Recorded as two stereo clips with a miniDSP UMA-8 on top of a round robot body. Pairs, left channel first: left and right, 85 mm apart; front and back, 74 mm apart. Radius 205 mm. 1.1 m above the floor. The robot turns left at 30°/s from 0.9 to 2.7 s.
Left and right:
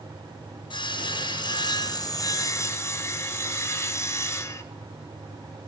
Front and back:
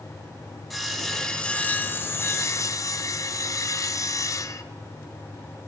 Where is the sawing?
85° left, 0.9 m; by 4.6 s 35° left, 0.9 m.